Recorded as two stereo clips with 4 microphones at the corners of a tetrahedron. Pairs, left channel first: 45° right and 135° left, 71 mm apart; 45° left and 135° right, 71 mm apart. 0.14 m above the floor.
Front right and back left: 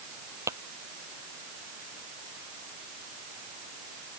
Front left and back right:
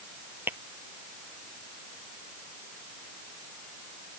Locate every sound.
0.5 s tapping: 170° left